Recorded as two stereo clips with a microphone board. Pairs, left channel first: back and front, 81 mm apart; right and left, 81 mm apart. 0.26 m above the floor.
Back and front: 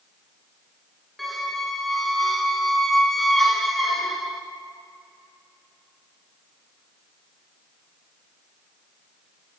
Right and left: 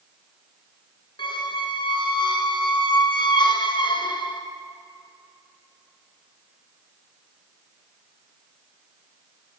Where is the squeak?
90° right, 1.3 m.